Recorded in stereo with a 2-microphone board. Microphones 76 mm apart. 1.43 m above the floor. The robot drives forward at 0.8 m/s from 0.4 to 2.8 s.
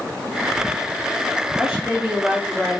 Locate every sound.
1.6 s a woman speaking: centre (ahead or behind), 2 m